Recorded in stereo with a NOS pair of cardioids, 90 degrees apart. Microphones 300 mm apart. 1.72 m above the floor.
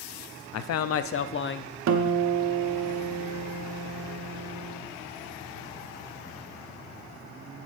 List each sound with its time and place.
0.5 s a man speaking: 65° left, 0.6 m; by 1.8 s 35° left, 1.1 m
1.9 s a guitar: 60° right, 1.3 m